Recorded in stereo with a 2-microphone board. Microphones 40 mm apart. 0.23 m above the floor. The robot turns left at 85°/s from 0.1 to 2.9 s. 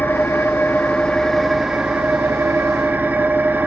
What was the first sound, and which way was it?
An engine running, 120° left.